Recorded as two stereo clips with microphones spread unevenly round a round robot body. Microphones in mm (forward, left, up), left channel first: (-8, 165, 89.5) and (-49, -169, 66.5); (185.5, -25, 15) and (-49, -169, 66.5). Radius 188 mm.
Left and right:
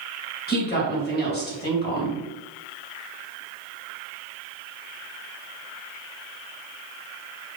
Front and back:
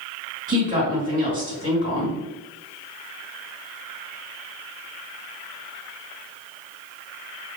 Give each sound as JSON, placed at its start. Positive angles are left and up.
{"t": 0.5, "sound": "a woman speaking", "azimuth_deg": 145, "distance_m": 1.5}